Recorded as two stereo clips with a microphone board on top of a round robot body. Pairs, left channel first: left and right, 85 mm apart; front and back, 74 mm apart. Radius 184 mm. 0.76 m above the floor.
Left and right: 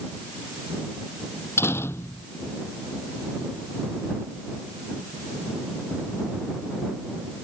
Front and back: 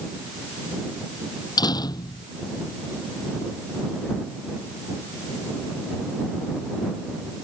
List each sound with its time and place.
1.6 s a door slam: 30° left